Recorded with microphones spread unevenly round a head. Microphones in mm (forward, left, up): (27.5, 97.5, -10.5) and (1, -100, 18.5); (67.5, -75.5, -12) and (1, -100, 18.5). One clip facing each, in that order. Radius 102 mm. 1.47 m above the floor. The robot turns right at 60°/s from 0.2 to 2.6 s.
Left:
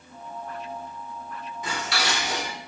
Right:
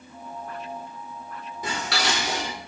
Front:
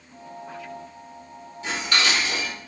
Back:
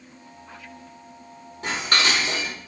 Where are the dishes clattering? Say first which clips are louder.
Right 2 dB, back 1 dB; 150° right, 3 m; by 2.5 s 95° right, 3 m.